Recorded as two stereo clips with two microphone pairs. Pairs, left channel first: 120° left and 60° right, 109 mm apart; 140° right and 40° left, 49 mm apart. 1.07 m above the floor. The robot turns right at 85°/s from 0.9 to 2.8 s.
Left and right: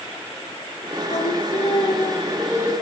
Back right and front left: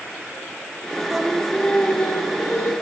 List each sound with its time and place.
1.1 s singing: 100° left, 1.4 m; by 2.7 s 120° right, 1.4 m